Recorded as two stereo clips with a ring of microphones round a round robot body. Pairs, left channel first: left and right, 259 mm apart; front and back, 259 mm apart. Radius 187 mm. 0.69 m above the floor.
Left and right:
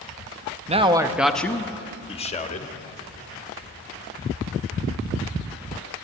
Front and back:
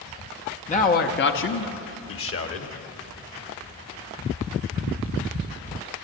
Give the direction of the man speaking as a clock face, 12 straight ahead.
1 o'clock.